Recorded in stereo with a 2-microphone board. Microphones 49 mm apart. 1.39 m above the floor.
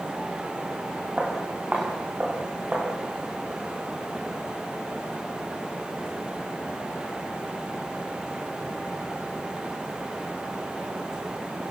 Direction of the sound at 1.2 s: 25° right (ahead or behind).